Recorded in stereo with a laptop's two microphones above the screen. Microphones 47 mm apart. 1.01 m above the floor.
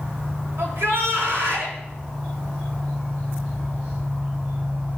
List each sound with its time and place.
0.6 s a shout: 75° right (ahead or behind), 3 m